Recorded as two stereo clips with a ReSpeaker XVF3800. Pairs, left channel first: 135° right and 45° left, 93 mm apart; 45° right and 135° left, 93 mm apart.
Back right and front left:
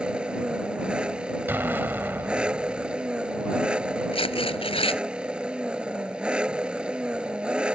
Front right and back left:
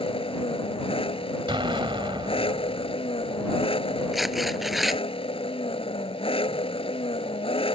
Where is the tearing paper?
135° right.